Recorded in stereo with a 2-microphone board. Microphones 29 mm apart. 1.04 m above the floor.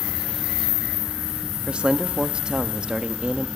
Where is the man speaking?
35° right (ahead or behind), 1.3 m.